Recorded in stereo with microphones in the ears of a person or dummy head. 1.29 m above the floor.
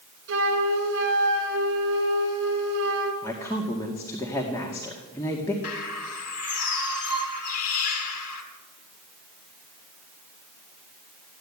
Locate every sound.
0.3 s a flute: 70° right (ahead or behind), 3 m
3.2 s a woman speaking: 20° left (ahead or behind), 2 m
5.6 s a bird: 50° left (ahead or behind), 2.5 m